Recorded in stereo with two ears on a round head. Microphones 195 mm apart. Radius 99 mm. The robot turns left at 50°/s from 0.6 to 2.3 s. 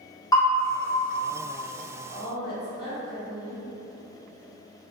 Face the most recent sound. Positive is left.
turn(degrees=50)  # may be behind; listen again after turning